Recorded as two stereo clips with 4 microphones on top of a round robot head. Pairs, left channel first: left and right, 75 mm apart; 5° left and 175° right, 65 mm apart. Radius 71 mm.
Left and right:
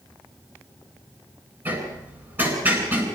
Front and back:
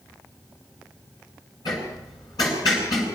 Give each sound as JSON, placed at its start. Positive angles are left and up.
{"t": 1.6, "sound": "hammering", "azimuth_deg": -30, "distance_m": 8.5}